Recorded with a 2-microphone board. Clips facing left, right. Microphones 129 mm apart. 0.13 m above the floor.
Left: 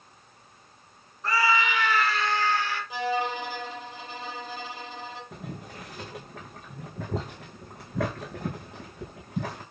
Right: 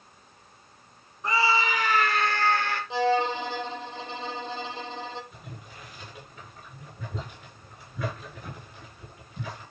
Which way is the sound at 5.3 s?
80° left.